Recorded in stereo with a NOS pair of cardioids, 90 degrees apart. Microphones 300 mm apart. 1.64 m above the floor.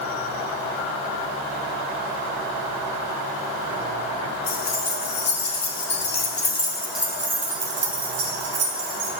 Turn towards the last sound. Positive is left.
turn(degrees=-70)